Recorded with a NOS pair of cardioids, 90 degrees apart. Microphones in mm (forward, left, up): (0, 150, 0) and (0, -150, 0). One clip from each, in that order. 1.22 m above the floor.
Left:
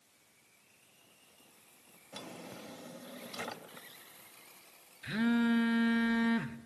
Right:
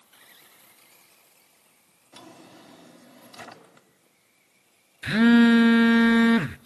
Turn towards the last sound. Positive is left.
turn(degrees=-50)